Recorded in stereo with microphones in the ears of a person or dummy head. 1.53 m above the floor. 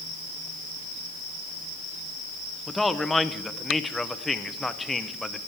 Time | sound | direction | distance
2.7 | a man speaking | 5° left (ahead or behind) | 0.8 m